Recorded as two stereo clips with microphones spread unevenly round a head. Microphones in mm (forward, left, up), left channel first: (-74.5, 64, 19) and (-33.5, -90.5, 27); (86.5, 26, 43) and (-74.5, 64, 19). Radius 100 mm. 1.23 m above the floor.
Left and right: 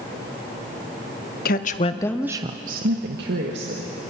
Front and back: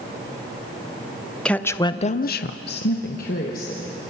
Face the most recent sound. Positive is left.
turn(degrees=-65)